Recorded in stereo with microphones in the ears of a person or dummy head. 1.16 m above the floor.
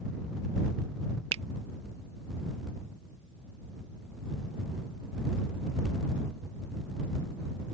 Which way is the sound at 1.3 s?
30° right (ahead or behind).